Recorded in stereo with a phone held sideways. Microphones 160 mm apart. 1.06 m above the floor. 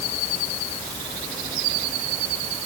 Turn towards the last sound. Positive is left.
No sound to turn to.